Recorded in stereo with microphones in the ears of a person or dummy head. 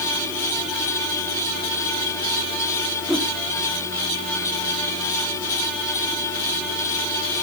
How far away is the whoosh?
About 1.8 m.